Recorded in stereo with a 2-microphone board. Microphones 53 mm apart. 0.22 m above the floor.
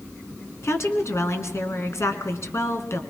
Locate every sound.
0.6 s a woman speaking: 60° left (ahead or behind), 2.5 m